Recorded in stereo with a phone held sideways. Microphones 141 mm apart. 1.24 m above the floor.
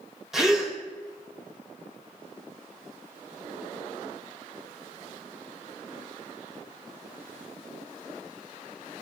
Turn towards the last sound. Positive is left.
turn(degrees=-5)  # may be behind; listen again after turning